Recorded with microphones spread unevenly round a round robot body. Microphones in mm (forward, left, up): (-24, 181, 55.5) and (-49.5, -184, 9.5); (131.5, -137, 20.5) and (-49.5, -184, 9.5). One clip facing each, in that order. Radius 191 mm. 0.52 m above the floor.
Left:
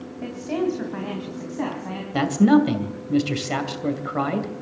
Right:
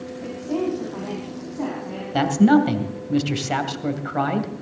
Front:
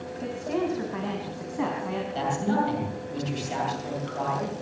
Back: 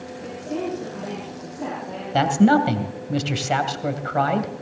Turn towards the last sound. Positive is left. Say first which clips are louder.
# even, back 11 dB
turn(degrees=180)